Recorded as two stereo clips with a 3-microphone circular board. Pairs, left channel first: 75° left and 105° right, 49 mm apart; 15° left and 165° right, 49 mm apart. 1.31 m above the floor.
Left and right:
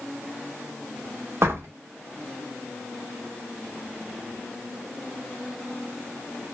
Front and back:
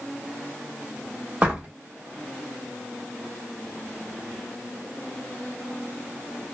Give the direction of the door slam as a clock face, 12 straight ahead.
3 o'clock.